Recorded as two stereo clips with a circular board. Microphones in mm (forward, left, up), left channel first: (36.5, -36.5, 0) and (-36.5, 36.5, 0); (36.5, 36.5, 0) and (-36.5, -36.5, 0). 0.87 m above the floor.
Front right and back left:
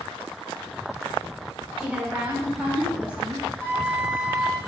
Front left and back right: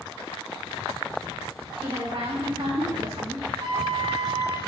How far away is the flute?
About 1.6 m.